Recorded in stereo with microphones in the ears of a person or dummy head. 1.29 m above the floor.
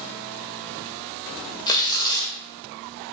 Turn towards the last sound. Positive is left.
turn(degrees=25)  # may be behind; listen again after turning